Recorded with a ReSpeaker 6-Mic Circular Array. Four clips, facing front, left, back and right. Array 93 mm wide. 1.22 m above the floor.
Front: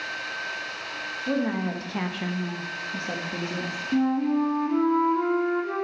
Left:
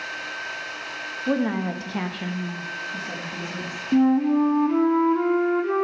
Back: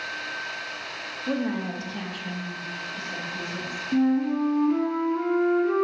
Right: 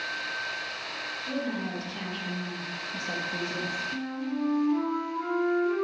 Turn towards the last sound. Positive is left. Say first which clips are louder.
# left 18 dB, back 1 dB
turn(degrees=90)